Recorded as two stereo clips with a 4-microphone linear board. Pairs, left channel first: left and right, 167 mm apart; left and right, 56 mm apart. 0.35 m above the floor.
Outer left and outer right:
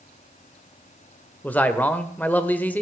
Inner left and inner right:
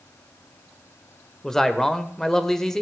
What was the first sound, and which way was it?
A man speaking, 10° left (ahead or behind).